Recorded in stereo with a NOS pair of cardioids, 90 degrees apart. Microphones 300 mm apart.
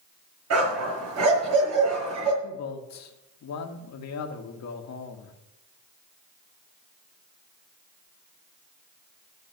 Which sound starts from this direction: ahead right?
A dog barking, at 0.5 s.